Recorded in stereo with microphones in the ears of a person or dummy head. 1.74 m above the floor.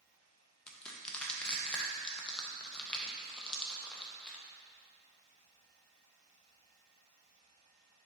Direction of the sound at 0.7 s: 10° left (ahead or behind).